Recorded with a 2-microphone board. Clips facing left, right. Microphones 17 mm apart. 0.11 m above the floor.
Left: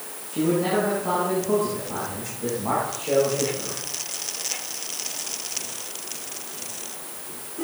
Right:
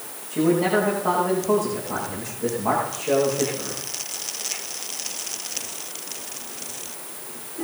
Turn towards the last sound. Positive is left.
turn(degrees=-30)  # may be behind; listen again after turning